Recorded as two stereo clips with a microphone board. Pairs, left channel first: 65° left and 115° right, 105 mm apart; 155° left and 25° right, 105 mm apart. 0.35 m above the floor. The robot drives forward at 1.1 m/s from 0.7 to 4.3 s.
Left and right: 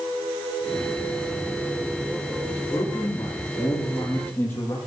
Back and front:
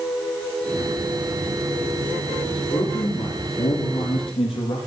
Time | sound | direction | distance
2.4 | a man speaking | 125° left | 8 m